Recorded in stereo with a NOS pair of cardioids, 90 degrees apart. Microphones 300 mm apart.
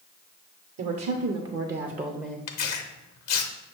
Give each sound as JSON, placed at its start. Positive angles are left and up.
{"t": 0.8, "sound": "a woman speaking", "azimuth_deg": -65, "distance_m": 0.9}
{"t": 2.5, "sound": "tearing paper", "azimuth_deg": 60, "distance_m": 0.7}